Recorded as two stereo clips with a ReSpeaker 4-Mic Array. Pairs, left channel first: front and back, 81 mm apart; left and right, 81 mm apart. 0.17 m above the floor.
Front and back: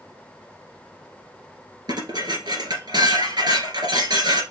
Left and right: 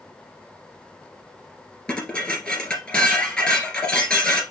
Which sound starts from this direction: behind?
Dishes clattering, at 1.9 s.